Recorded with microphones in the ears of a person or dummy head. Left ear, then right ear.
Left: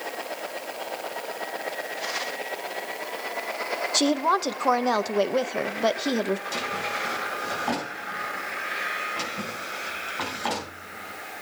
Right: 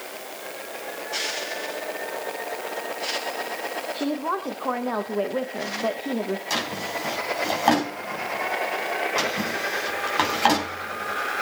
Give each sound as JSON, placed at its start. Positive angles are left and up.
{"t": 3.9, "sound": "a woman speaking", "side_deg": 80, "distance_m": 0.8}
{"t": 6.5, "sound": "a drawer", "side_deg": -75, "distance_m": 4.5}